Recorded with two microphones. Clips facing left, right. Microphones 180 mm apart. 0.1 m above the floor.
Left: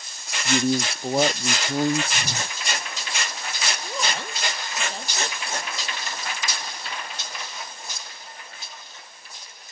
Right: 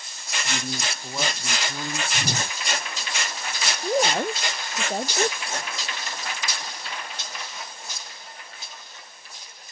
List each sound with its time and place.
0.5 s a man speaking: 50° left (ahead or behind)
2.1 s a whoosh: 20° right (ahead or behind)
3.8 s a woman speaking: 50° right (ahead or behind)